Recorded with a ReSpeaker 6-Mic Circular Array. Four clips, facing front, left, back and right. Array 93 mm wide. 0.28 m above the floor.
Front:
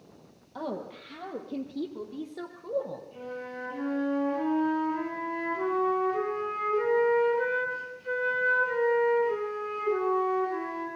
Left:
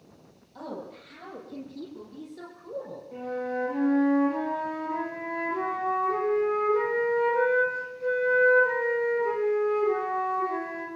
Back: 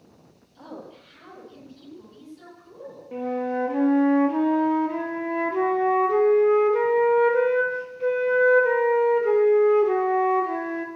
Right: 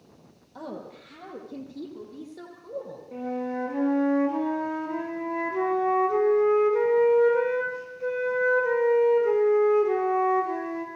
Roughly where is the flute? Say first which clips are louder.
Right 1 dB, back 12 dB; behind.